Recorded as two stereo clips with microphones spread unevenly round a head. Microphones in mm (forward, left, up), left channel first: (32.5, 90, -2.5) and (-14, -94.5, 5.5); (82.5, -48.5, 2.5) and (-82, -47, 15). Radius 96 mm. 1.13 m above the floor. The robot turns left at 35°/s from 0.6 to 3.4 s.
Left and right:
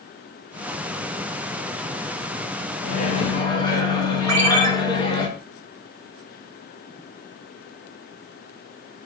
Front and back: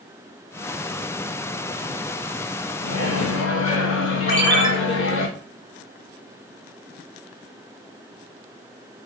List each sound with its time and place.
2.8 s a microwave: 25° left, 0.9 m; by 5.3 s 5° left, 0.9 m
4.3 s a ringtone: 50° right, 1.5 m